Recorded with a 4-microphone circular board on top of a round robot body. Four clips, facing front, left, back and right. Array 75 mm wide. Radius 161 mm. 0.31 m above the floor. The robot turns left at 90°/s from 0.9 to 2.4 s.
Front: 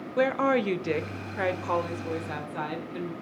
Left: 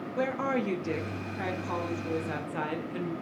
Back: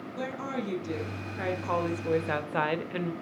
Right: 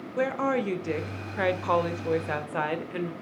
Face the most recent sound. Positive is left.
turn(degrees=-150)